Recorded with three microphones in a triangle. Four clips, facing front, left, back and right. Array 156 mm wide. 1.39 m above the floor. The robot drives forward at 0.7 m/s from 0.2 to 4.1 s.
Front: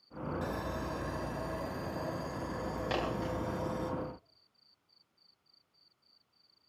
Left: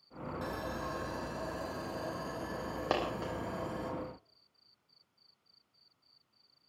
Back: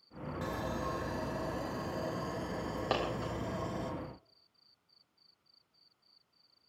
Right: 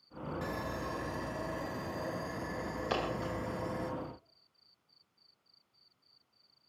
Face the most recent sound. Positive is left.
turn(degrees=120)